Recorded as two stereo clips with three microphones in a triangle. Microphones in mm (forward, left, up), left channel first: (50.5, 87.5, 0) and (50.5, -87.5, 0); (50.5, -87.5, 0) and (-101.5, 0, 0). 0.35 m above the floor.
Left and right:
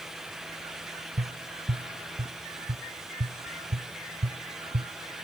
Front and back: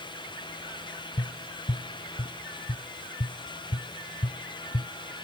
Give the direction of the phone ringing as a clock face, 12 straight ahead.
No phone ringing in this recording.